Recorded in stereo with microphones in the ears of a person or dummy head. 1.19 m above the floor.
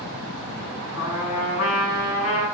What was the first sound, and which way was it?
A trumpet, 80° left.